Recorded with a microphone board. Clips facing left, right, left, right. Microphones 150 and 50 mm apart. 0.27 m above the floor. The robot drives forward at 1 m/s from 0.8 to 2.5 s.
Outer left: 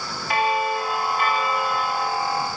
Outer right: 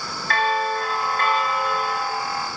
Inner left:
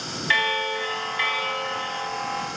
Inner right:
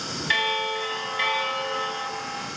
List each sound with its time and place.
0.3 s a bell: 15° left (ahead or behind), 0.8 m; by 2.1 s 5° left (ahead or behind), 2.0 m